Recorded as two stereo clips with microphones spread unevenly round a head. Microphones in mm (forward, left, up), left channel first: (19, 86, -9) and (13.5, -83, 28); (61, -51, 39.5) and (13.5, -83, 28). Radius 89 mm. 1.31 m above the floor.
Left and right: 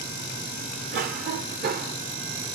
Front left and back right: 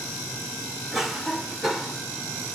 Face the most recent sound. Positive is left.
turn(degrees=-55)